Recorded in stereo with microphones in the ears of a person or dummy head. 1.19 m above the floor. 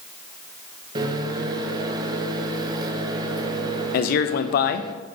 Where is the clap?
I don't hear a clap.